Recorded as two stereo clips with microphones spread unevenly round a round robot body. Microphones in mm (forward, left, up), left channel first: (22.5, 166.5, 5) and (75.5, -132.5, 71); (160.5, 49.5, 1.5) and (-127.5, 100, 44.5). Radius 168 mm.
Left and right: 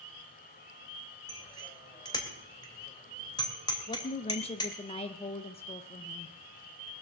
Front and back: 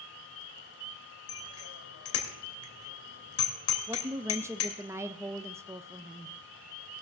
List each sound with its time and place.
1.3 s a bicycle bell: 25° left, 2.5 m
3.9 s a woman speaking: 85° left, 0.7 m